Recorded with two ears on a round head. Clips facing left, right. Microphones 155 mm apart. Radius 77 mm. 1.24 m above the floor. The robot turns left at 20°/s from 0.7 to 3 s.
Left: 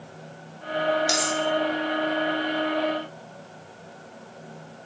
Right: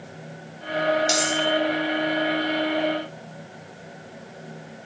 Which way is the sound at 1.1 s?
5° left (ahead or behind).